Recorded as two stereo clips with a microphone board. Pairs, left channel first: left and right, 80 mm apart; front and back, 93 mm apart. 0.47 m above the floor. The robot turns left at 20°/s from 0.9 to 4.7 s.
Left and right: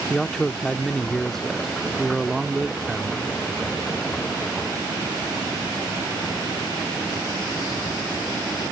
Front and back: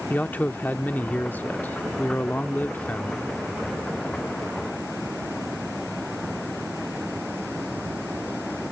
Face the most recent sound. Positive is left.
turn(degrees=-60)